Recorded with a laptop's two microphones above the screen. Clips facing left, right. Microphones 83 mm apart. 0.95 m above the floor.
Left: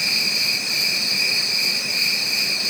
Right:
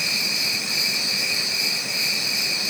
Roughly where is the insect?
Right.